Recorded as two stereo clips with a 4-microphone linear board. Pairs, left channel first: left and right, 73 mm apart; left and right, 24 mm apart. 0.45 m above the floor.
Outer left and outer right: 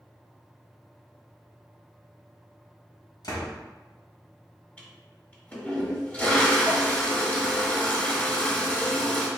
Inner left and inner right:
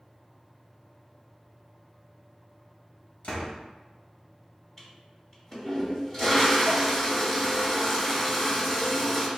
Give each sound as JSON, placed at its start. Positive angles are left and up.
{"t": 3.2, "sound": "a door slam", "side_deg": 60, "distance_m": 1.4}
{"t": 4.8, "sound": "a toilet flushing", "side_deg": 20, "distance_m": 1.4}